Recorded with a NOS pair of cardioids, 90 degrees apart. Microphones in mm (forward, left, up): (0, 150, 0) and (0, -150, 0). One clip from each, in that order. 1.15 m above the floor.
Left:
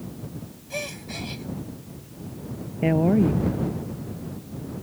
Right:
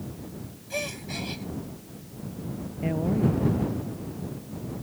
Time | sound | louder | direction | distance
0.7 | a gasp | even | 5° right | ?
2.8 | a woman speaking | left 6 dB | 60° left | ?